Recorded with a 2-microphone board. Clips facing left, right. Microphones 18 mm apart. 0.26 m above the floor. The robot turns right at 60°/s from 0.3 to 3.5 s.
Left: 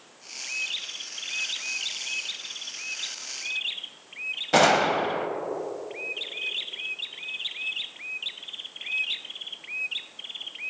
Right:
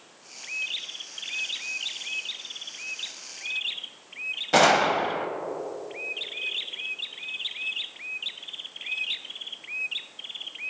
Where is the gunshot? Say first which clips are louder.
Even; 5° right (ahead or behind), 0.9 m.